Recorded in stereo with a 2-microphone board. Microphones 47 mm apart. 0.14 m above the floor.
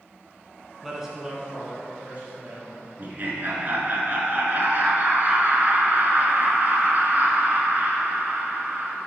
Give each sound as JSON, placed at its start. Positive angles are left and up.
{"t": 0.8, "sound": "a man speaking", "side_deg": -5, "distance_m": 1.3}
{"t": 3.0, "sound": "laughter", "side_deg": -40, "distance_m": 1.6}